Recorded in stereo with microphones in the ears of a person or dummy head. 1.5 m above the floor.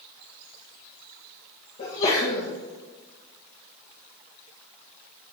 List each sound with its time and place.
1.8 s a sneeze: 40° left (ahead or behind), 1.5 m